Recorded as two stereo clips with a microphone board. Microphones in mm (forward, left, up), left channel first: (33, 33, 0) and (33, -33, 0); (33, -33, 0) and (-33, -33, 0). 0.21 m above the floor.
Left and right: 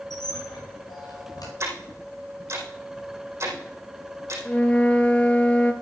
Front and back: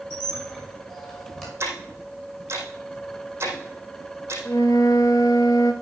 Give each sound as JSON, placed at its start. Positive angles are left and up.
{"t": 0.1, "sound": "a squeak", "azimuth_deg": 85, "distance_m": 6.5}
{"t": 1.6, "sound": "ticking", "azimuth_deg": -130, "distance_m": 4.5}
{"t": 4.5, "sound": "a flute", "azimuth_deg": 20, "distance_m": 1.1}